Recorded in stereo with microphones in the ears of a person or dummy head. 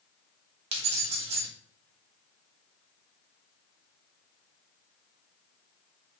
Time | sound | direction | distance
0.7 | keys jangling | 35° right (ahead or behind) | 0.6 m